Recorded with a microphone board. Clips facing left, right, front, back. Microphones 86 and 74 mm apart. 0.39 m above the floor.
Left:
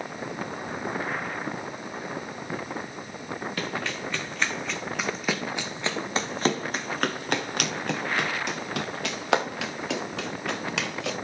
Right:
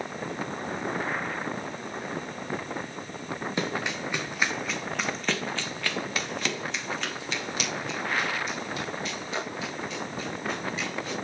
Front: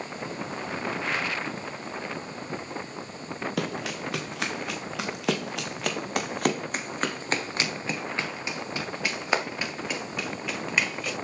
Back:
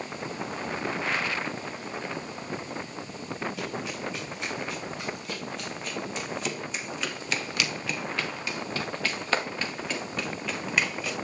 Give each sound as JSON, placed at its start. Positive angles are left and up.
{"t": 3.6, "sound": "running footsteps", "azimuth_deg": -20, "distance_m": 2.5}